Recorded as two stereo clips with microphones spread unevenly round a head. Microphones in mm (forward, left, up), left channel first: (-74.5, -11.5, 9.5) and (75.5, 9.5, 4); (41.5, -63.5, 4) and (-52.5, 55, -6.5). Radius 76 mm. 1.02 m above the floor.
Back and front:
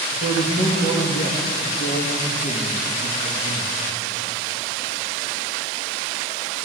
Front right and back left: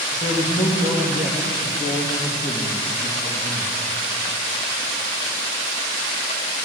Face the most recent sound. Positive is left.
turn(degrees=-155)